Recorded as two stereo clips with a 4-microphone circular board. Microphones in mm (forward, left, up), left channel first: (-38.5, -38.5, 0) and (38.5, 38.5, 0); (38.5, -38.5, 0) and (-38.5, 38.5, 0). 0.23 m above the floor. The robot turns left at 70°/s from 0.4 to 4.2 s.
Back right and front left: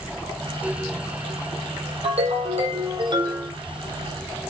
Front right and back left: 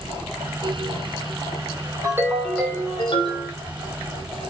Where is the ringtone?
75° left, 5 m; by 3.5 s 30° right, 5 m.